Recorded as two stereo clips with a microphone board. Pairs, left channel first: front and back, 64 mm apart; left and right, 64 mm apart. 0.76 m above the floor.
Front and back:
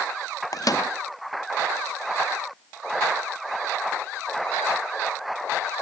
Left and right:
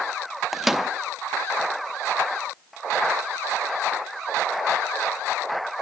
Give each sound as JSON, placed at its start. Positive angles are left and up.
{"t": 0.5, "sound": "a microwave", "azimuth_deg": -5, "distance_m": 0.5}